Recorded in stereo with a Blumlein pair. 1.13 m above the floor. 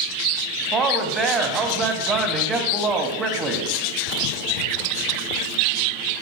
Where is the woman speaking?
20° right, 1.5 m.